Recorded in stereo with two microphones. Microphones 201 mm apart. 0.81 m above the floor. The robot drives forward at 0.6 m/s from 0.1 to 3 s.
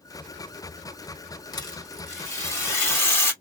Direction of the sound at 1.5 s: 20° left (ahead or behind).